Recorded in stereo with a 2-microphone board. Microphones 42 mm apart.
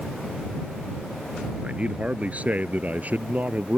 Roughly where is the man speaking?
Right.